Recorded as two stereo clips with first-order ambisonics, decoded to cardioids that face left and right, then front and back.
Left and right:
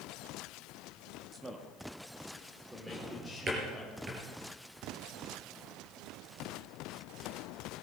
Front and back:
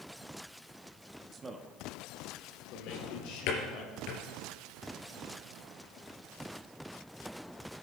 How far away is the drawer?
About 4 m.